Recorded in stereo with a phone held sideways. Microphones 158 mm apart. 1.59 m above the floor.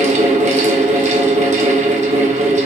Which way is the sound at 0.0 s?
50° right (ahead or behind).